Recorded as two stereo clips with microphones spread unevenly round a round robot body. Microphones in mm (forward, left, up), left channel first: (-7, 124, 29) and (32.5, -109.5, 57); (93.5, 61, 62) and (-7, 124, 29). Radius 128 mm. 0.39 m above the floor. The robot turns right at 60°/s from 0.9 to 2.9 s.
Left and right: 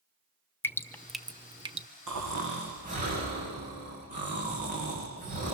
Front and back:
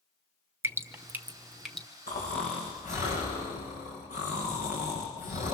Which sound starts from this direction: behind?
Dripping, at 0.6 s.